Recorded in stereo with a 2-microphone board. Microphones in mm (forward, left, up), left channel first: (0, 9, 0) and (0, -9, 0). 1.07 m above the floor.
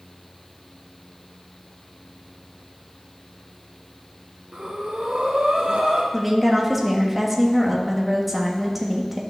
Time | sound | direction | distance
4.5 | breathing | 55° right (ahead or behind) | 1.2 m
6.1 | a woman speaking | centre (ahead or behind) | 1.4 m